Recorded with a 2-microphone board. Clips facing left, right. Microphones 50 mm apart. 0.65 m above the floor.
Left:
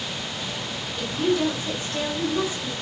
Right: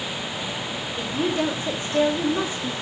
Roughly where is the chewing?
I don't hear chewing.